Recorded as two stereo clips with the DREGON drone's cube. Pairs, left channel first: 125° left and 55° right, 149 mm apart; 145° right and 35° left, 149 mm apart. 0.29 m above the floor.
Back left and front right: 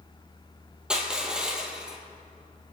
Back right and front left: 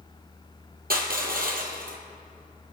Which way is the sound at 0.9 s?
30° left.